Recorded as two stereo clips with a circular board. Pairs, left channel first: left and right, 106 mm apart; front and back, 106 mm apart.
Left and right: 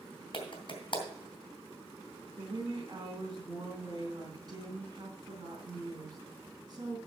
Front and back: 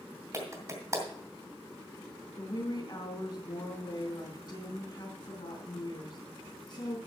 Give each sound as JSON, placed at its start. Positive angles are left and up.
{"t": 0.3, "sound": "a clap", "azimuth_deg": 125, "distance_m": 2.5}
{"t": 2.4, "sound": "a woman speaking", "azimuth_deg": -40, "distance_m": 3.0}